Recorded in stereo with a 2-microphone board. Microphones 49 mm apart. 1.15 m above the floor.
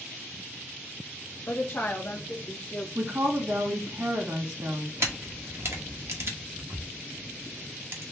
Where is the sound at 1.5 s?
50° left (ahead or behind), 0.6 m; by 2.9 s 25° left (ahead or behind), 1.2 m.